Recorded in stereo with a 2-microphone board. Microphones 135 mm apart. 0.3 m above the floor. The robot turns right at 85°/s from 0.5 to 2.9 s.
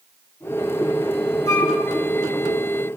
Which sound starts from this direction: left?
A flute, at 1.5 s.